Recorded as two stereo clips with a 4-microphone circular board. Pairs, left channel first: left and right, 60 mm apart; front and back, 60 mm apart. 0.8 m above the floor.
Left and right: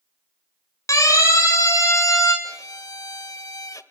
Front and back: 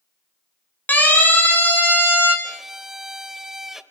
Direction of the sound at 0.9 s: 60° left.